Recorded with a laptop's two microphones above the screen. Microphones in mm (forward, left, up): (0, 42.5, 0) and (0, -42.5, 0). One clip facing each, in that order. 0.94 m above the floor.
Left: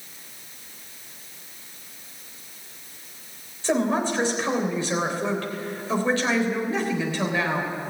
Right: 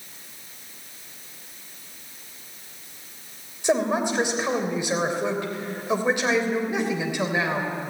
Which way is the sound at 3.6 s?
15° right (ahead or behind).